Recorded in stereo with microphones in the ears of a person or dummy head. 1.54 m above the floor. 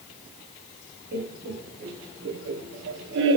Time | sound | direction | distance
1.1 | laughter | 55° right (ahead or behind) | 2.5 m